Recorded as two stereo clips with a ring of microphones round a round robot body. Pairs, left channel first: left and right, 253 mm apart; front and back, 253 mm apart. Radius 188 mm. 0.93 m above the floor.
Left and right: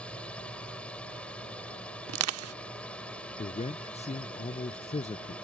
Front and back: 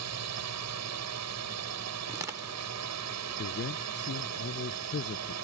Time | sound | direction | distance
0.0 | a drone | 175° left | ?
2.1 | crushing | 100° right | ?
3.4 | a man speaking | 30° left | ?